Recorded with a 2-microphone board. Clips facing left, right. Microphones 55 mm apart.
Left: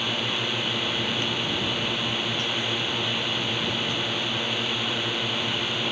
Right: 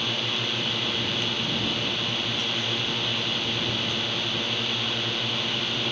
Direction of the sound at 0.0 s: 10° left (ahead or behind).